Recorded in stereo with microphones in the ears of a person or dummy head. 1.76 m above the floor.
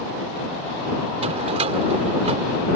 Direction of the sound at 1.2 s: 35° right (ahead or behind).